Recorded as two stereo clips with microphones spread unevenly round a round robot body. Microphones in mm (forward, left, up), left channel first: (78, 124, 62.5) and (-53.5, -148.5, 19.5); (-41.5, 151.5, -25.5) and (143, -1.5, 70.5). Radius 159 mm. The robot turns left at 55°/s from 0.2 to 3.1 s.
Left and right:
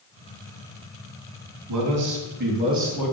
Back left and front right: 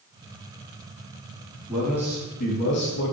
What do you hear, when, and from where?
1.7 s a man speaking: 130° right, 3.5 m; by 3.1 s 155° left, 3.5 m